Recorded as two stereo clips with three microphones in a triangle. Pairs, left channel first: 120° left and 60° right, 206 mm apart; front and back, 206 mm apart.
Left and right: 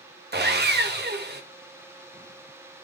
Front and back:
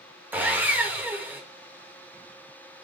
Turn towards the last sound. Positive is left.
turn(degrees=-100)